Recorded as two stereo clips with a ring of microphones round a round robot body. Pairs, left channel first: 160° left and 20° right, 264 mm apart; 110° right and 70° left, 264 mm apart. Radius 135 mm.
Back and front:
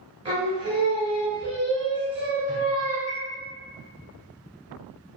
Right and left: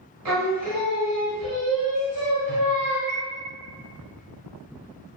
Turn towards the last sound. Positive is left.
turn(degrees=-15)